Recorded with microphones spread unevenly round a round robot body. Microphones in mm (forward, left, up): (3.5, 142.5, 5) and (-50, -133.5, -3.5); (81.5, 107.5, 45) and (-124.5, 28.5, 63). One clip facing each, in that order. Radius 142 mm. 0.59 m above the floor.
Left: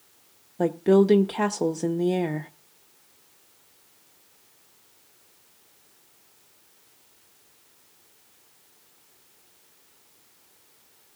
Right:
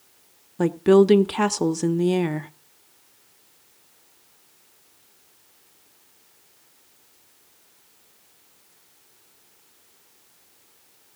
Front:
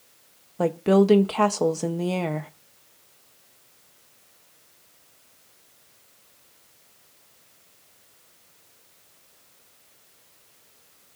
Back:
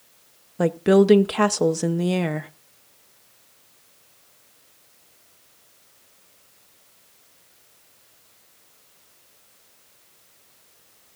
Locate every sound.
0.6 s a woman speaking: 100° right, 0.6 m